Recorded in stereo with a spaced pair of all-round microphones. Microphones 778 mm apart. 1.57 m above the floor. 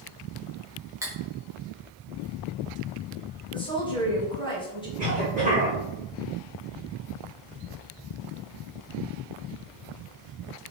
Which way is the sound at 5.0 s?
75° right (ahead or behind).